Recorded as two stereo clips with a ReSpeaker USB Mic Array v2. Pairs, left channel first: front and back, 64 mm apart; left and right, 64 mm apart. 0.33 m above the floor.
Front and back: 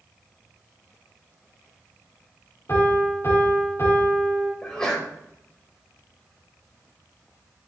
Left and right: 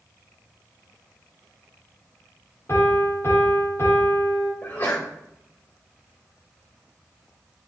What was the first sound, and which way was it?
A piano, 45° left.